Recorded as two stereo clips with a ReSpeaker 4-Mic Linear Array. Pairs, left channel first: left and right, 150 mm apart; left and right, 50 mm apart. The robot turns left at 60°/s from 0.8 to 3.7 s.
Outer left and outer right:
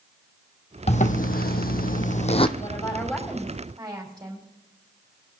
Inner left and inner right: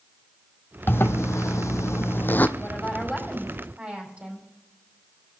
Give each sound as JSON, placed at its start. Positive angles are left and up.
{"t": 0.9, "sound": "a zipper", "azimuth_deg": 135, "distance_m": 0.8}
{"t": 2.6, "sound": "a woman speaking", "azimuth_deg": 40, "distance_m": 5.5}